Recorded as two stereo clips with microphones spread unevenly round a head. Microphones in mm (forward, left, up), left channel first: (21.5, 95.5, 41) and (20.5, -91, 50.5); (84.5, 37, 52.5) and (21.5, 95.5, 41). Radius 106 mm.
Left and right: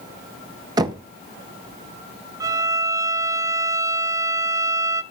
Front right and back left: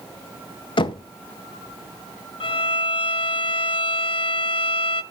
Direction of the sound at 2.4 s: 15° right.